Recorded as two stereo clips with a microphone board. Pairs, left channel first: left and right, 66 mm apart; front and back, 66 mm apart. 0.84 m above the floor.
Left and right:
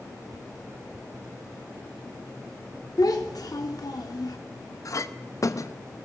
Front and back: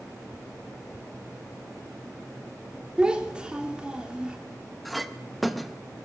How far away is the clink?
About 0.6 m.